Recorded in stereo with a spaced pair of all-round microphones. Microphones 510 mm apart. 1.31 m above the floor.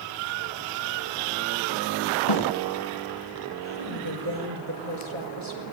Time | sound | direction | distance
2.3 | a snare drum | 75° left (ahead or behind) | 3 m
3.6 | a woman speaking | 70° right (ahead or behind) | 5 m